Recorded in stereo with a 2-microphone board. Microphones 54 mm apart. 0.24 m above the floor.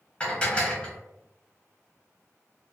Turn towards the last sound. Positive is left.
turn(degrees=25)  # may be behind; listen again after turning